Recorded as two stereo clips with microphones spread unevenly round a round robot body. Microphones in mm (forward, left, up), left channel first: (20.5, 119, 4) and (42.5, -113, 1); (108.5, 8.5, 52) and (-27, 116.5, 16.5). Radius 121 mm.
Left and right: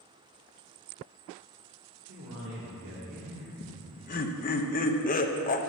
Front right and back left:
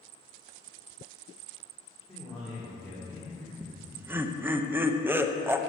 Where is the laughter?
95° left, 0.9 m.